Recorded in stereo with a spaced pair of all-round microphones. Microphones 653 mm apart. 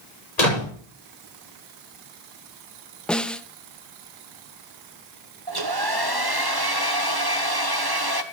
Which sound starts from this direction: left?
A door slam, at 0.4 s.